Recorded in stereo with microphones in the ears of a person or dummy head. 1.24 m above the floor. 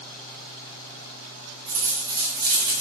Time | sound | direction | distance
1.7 | a dropped coin | 20° right (ahead or behind) | 0.8 m